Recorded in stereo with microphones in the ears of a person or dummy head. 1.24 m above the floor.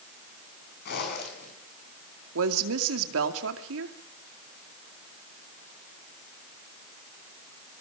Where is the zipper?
60° left (ahead or behind), 7 m.